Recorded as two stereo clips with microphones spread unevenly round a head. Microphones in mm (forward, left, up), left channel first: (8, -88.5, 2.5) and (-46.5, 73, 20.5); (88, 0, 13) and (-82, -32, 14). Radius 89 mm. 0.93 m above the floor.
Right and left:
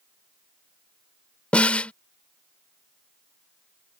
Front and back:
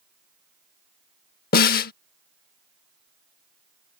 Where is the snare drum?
15° left.